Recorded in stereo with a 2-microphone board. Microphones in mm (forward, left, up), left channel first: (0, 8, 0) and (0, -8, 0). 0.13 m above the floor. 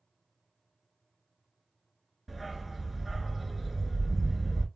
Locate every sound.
2.3 s a dog barking: centre (ahead or behind), 0.7 m